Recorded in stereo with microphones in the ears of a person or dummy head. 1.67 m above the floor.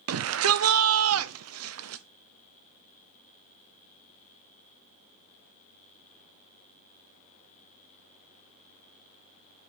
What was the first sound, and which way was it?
A shout, 80° right.